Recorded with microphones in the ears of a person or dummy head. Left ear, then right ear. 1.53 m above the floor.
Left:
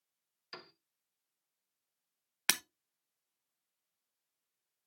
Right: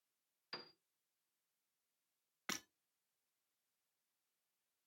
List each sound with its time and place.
0.5 s a piano: centre (ahead or behind), 0.7 m
2.5 s breaking glass: 40° left (ahead or behind), 0.9 m